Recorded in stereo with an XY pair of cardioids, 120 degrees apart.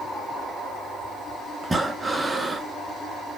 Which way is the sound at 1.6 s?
15° right.